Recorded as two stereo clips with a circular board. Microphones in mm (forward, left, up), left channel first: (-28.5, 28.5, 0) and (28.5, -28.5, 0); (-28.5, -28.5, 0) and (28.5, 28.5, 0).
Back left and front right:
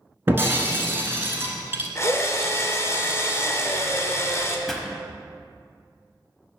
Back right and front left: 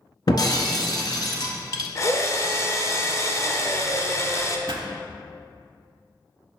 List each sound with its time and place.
0.3 s breaking glass: 105° right, 0.9 m
1.9 s a drill: 175° right, 0.6 m
4.7 s a pop: 50° left, 0.7 m